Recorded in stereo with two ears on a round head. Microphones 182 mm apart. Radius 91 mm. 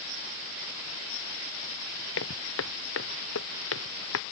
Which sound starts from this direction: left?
Footsteps, at 2.2 s.